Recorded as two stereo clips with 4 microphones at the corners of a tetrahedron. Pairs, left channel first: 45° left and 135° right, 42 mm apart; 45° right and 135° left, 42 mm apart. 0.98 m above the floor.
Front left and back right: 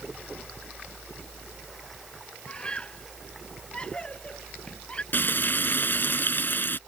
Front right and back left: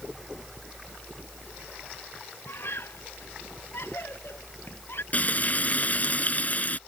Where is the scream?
20° right.